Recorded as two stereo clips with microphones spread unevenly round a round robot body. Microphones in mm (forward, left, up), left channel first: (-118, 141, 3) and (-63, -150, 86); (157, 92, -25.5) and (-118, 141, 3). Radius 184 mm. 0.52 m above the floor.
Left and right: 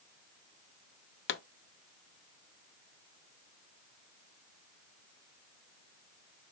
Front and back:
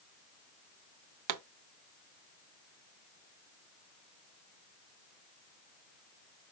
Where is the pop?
150° left, 0.7 m.